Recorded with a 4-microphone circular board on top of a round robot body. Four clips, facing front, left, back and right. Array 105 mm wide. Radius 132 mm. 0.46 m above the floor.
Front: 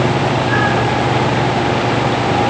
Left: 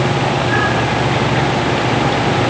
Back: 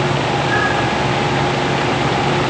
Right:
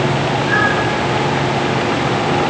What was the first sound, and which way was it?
Only background noise.